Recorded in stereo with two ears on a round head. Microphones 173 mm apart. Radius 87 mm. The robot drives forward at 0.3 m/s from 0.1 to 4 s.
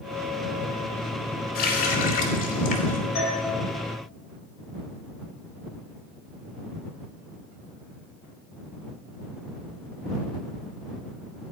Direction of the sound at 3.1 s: 35° left (ahead or behind).